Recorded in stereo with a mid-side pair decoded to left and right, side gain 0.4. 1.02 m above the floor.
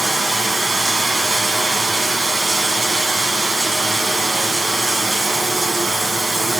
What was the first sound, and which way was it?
Running water, 30° right.